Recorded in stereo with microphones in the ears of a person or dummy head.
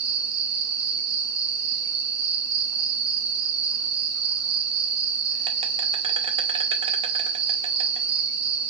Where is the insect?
30° right (ahead or behind), 0.8 m.